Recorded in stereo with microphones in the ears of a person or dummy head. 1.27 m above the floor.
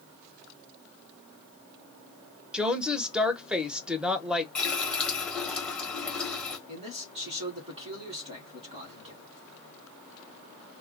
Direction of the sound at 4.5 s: 10° left (ahead or behind).